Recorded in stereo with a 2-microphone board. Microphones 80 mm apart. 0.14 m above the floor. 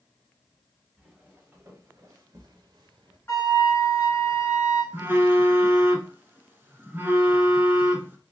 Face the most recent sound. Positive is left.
turn(degrees=-25)  # may be behind; listen again after turning